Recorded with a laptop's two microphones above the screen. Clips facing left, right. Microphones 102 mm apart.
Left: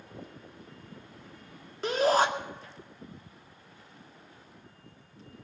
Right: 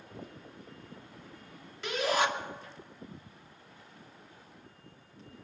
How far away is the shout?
About 2.5 m.